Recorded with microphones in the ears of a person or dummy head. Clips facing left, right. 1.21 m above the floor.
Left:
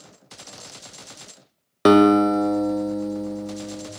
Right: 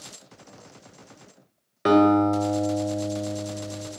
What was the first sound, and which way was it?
A guitar, 55° left (ahead or behind).